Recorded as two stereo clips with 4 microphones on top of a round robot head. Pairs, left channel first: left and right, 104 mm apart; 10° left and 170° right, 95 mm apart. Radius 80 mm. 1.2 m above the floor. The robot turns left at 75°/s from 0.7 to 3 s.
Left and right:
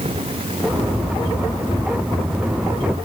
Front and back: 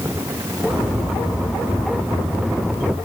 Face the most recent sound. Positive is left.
No sound to turn to.